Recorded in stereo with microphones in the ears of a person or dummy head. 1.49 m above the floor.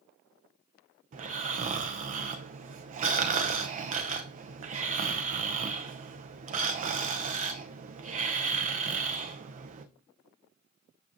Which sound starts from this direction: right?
Snoring, at 1.1 s.